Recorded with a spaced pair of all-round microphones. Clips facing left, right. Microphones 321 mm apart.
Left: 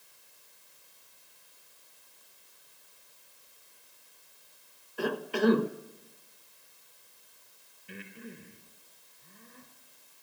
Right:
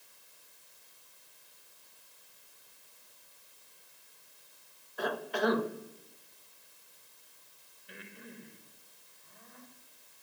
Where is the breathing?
35° left (ahead or behind), 3.5 m.